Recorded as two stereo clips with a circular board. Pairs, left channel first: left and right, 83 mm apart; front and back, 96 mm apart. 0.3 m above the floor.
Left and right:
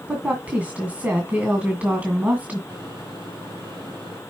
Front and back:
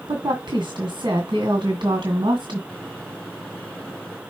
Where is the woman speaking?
155° right, 1.9 m.